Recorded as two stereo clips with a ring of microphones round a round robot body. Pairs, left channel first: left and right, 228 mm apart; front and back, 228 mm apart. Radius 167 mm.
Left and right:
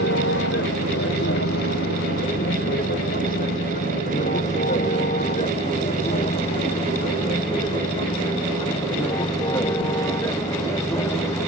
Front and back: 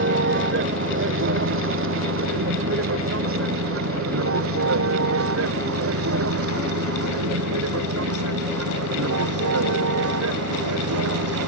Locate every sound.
0.0 s a vehicle: 150° left; by 11.5 s 170° left